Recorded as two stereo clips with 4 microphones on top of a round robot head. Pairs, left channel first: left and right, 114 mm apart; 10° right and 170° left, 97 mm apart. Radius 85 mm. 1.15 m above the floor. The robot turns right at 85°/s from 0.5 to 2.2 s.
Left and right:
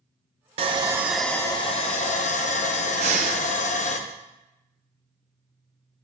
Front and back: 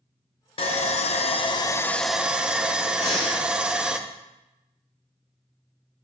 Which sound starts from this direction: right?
Breathing, at 3.0 s.